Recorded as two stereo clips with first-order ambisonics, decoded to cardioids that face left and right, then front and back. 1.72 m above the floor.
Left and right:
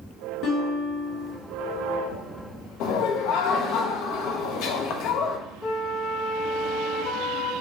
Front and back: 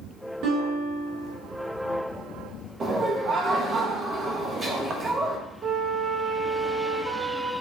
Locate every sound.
0.4 s a guitar: 140° left, 2.5 m
2.8 s laughter: 115° left, 0.8 m
5.6 s a flute: 145° left, 0.7 m